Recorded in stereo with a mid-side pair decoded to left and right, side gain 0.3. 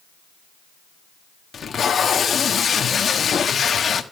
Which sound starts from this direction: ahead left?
Tape being pulled, at 1.5 s.